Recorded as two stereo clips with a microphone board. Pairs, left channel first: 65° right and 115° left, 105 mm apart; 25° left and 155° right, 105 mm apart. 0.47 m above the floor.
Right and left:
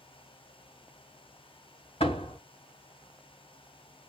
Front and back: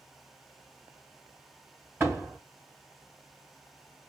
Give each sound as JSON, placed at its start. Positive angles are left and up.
{"t": 2.0, "sound": "a door slam", "azimuth_deg": -90, "distance_m": 2.5}